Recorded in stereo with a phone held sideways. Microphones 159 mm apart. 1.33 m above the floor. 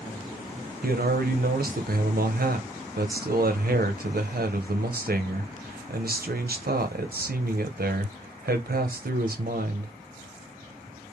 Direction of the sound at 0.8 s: 75° right (ahead or behind).